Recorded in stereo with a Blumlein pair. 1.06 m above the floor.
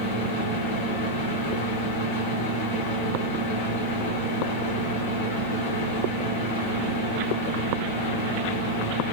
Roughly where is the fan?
Ahead left.